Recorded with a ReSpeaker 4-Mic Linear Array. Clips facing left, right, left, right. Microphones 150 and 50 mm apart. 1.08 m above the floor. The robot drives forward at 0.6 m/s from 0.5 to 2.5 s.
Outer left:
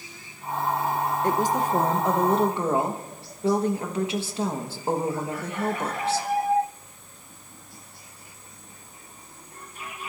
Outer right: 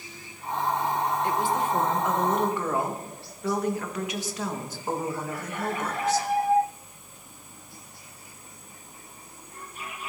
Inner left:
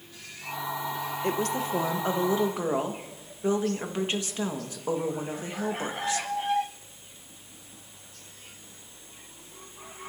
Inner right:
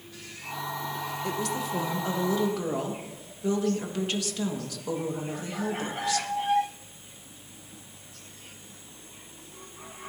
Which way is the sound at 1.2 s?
45° left (ahead or behind).